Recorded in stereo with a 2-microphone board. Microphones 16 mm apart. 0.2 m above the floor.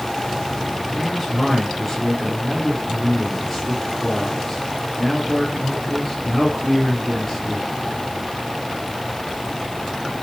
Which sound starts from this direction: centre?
A man speaking, at 0.9 s.